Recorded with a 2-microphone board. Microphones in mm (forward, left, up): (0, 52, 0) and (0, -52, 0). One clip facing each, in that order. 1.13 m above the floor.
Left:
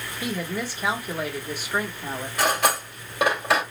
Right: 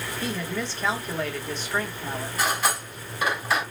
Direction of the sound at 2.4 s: 85° left.